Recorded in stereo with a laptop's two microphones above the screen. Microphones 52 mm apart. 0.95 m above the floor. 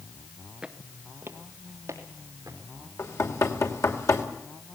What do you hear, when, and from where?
0.6 s footsteps: 10° right (ahead or behind), 1.0 m; by 2.6 s 65° right (ahead or behind), 3.5 m
3.0 s knocking: 70° left (ahead or behind), 2.5 m